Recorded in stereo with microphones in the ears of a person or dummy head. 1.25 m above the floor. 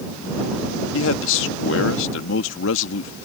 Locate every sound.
0.9 s a man speaking: 75° left (ahead or behind)